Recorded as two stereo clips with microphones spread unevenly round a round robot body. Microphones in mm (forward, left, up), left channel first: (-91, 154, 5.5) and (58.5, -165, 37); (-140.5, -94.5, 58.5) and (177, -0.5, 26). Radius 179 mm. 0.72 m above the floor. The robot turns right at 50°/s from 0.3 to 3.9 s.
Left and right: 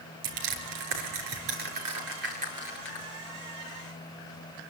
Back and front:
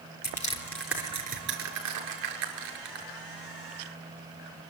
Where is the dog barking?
No dog barking in this recording.